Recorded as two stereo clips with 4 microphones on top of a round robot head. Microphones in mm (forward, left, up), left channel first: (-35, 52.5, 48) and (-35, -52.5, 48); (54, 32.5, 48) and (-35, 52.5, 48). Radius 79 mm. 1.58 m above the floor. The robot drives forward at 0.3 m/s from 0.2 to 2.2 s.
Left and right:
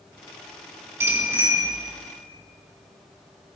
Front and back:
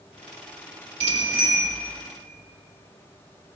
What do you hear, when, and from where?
1.0 s a bicycle bell: 155° right, 4 m